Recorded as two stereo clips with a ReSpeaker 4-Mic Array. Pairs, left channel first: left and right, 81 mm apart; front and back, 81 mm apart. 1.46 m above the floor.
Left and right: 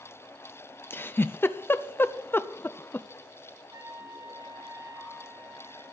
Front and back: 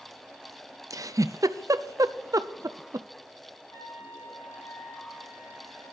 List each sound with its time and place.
0.9 s a giggle: 150° left, 0.5 m
3.7 s a trumpet: 50° right, 8 m